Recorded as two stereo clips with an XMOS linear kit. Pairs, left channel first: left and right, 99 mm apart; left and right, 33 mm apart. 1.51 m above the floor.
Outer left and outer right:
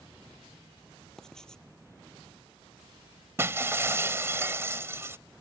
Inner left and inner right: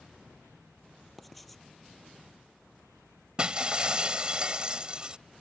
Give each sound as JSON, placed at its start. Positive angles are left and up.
{"t": 1.2, "sound": "writing", "side_deg": 5}
{"t": 3.4, "sound": "breaking glass", "side_deg": -25}